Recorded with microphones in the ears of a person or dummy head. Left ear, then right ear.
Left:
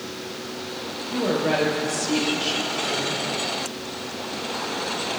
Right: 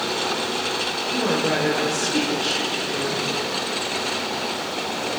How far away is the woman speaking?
About 4.5 m.